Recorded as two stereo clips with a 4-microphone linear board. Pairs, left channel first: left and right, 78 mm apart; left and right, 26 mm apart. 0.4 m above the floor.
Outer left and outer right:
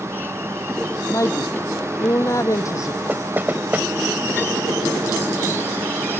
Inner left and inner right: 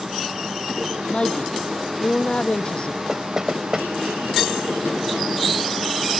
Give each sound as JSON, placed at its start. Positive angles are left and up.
{"t": 1.1, "sound": "a woman speaking", "side_deg": 40}
{"t": 3.1, "sound": "knocking", "side_deg": -25}